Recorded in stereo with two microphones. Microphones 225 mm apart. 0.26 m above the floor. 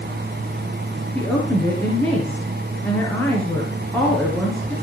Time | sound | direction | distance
1.1 | a woman speaking | 10° left (ahead or behind) | 4 m